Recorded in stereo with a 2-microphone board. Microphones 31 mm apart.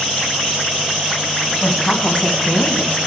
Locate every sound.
1.6 s a woman speaking: 25° left (ahead or behind), 2.5 m; by 3.0 s 65° left (ahead or behind), 2.5 m